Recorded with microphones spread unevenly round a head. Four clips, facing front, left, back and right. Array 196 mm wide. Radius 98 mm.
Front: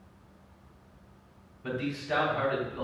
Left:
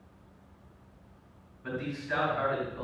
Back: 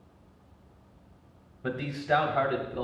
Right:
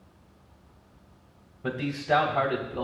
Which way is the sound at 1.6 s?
125° right.